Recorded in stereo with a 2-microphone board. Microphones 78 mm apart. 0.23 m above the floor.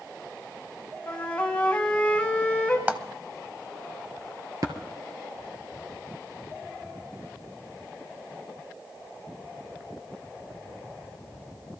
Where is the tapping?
50° right (ahead or behind), 1.9 m.